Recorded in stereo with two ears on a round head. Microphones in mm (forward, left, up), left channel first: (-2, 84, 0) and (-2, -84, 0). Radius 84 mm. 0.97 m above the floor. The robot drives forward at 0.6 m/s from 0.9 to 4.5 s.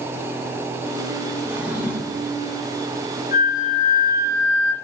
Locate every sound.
1.4 s a drawer: 10° right (ahead or behind), 2.5 m
3.3 s a flute: 40° left (ahead or behind), 1.4 m; by 4.7 s 60° left (ahead or behind), 1.0 m